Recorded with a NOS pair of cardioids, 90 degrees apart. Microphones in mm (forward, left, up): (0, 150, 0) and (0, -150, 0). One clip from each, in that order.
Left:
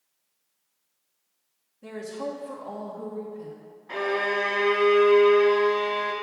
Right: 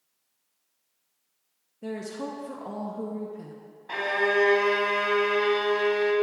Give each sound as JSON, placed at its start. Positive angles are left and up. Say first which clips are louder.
{"t": 1.8, "sound": "a woman speaking", "louder": "left 1 dB", "azimuth_deg": -45, "distance_m": 1.1}
{"t": 3.9, "sound": "a violin", "louder": "right 1 dB", "azimuth_deg": -35, "distance_m": 2.0}